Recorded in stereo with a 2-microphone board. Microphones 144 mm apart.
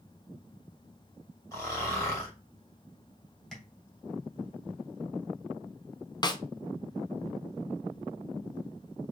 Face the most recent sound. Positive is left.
turn(degrees=30)  # may be behind; listen again after turning